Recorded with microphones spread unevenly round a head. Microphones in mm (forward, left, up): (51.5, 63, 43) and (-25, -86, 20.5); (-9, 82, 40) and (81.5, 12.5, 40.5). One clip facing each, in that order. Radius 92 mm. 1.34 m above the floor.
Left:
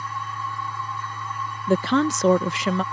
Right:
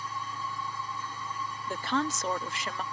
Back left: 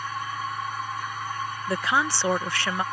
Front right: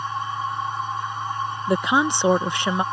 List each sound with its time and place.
0.0 s a machine running: 30° left
1.7 s a woman speaking: 35° left